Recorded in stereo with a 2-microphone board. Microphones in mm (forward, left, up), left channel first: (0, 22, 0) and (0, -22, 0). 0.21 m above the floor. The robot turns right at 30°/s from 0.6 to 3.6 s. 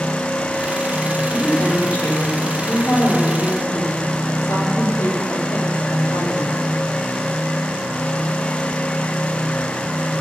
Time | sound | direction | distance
1.3 | a woman speaking | 20° left | 7.5 m